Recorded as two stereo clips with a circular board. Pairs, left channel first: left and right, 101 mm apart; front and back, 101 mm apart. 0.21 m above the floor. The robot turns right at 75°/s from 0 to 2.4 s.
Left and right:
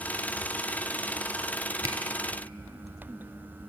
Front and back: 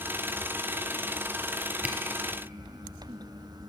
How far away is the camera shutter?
About 0.6 m.